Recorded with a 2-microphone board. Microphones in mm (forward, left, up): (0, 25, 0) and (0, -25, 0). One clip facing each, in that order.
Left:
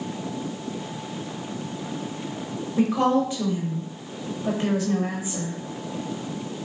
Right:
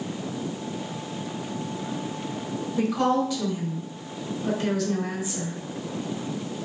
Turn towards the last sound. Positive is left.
turn(degrees=20)  # may be behind; listen again after turning